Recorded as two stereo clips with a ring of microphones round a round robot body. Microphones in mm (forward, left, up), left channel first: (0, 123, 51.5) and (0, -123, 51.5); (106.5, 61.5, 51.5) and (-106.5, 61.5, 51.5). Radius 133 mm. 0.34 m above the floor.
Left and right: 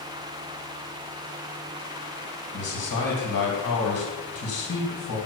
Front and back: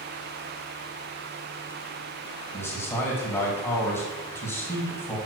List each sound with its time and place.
2.5 s a man speaking: 80° left, 2.5 m